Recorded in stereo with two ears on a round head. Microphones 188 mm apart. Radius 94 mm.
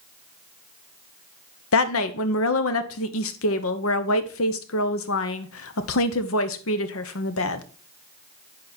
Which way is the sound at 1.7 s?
80° left.